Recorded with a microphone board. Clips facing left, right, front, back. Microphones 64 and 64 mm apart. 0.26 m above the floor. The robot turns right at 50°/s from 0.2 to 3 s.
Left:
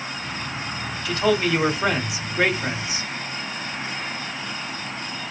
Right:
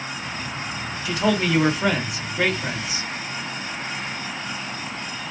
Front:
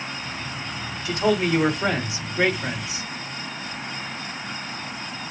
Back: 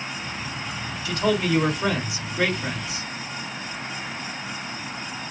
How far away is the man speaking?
About 1.7 m.